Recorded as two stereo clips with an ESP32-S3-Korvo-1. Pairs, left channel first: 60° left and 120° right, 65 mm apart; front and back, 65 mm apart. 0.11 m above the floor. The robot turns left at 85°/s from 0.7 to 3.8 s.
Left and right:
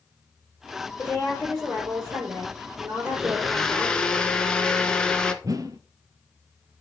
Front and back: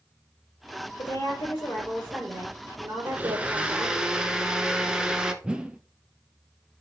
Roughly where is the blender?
Behind.